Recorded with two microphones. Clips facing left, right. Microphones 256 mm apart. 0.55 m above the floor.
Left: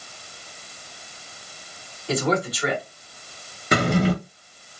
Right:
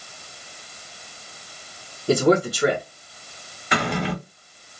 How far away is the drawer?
About 0.9 m.